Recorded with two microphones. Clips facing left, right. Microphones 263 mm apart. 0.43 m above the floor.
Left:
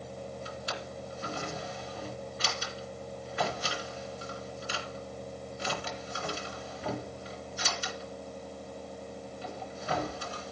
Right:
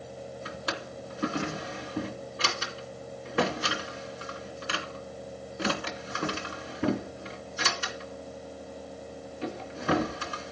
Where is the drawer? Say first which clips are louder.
Right 3 dB; 75° right (ahead or behind), 2.5 m.